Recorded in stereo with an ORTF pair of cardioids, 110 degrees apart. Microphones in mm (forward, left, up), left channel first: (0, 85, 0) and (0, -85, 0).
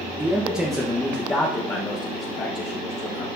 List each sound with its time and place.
0.2 s a man speaking: 15° right, 1.2 m; by 3.2 s 40° left, 2.0 m